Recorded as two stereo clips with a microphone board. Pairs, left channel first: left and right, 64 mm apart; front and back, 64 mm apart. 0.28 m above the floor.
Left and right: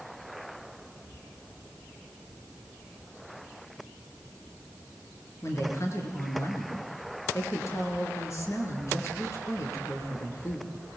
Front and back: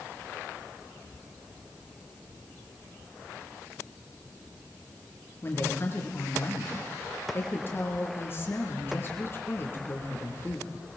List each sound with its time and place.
5.4 s a woman speaking: 50° left, 6 m